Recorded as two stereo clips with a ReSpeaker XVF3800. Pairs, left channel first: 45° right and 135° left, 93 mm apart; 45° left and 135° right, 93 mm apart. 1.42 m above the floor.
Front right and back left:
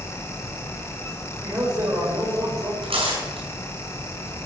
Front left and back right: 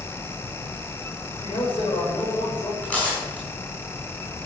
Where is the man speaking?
75° left, 7.5 m.